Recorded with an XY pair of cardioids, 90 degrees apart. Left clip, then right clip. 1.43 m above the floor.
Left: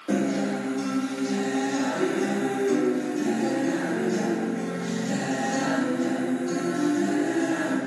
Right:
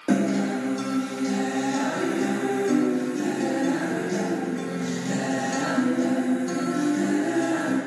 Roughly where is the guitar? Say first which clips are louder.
Right 2 dB; ahead right.